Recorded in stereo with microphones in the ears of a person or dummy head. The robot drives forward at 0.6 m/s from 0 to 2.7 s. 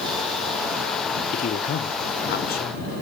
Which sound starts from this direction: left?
A man speaking, at 1.3 s.